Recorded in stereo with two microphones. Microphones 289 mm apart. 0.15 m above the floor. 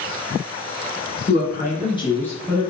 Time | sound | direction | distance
1.3 | a woman speaking | 35° left (ahead or behind) | 1.3 m